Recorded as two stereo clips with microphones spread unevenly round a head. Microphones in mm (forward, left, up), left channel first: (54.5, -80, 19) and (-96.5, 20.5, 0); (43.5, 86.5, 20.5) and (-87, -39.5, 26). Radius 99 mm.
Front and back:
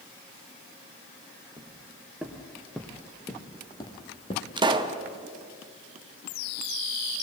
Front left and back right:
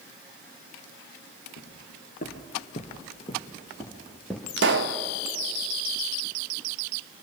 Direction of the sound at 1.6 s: 65° left.